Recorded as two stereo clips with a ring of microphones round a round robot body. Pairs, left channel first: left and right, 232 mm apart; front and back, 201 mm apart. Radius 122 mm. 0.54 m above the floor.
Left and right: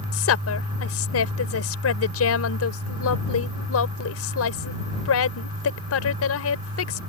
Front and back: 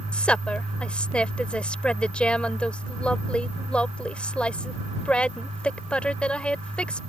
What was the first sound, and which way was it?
A woman speaking, 85° left.